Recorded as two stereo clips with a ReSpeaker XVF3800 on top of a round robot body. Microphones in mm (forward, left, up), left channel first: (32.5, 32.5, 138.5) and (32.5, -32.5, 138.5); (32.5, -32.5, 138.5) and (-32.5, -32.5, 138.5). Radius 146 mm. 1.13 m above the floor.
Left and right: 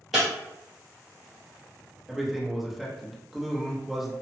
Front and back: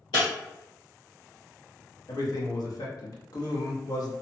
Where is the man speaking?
5° right, 1.1 m.